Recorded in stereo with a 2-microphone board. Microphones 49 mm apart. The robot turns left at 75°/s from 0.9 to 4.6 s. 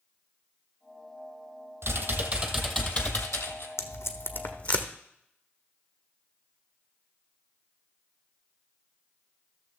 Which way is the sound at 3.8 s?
80° left.